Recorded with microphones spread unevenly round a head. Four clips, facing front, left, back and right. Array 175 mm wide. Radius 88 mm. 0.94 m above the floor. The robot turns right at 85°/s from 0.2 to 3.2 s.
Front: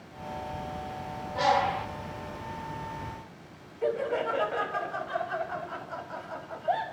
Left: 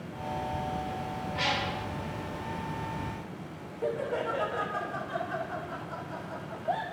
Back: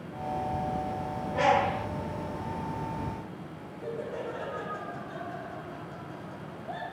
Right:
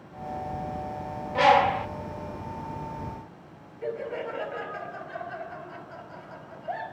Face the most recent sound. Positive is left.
turn(degrees=15)